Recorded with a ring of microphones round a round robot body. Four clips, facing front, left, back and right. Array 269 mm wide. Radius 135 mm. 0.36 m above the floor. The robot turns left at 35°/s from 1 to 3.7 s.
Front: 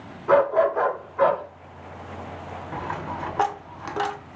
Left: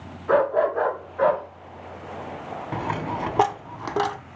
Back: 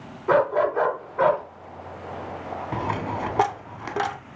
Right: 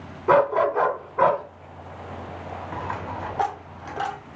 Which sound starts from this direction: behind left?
A dropped coin, at 2.7 s.